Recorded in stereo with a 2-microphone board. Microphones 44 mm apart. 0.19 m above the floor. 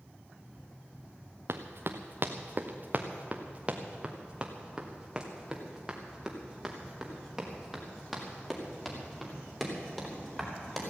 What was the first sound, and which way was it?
Running footsteps, 70° right (ahead or behind).